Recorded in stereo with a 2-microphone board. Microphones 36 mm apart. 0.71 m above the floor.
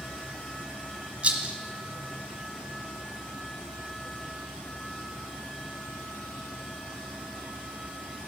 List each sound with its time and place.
1.2 s a rattle: 35° right (ahead or behind), 1.4 m